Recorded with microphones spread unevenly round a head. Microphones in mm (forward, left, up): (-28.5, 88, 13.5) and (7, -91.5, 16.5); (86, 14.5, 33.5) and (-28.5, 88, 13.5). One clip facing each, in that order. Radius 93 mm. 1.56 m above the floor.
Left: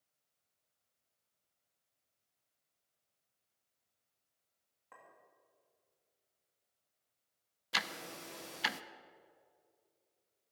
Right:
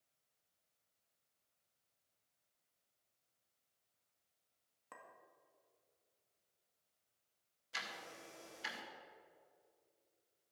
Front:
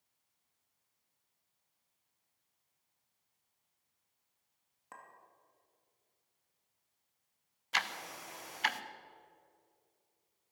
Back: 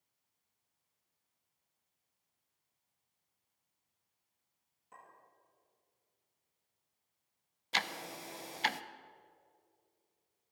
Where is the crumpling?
No crumpling in this recording.